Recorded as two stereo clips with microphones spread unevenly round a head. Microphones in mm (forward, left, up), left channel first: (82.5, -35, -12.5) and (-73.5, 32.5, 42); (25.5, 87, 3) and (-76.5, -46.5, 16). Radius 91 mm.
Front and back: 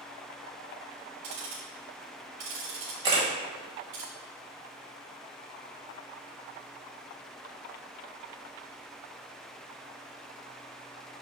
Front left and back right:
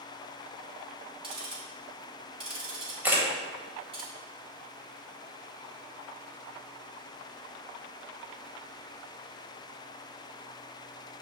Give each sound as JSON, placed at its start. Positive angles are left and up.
{"t": 1.2, "sound": "ticking", "azimuth_deg": 175, "distance_m": 3.0}
{"t": 3.0, "sound": "a camera shutter", "azimuth_deg": 165, "distance_m": 1.8}